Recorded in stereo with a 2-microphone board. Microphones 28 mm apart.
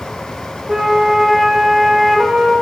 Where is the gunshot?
No gunshot in this recording.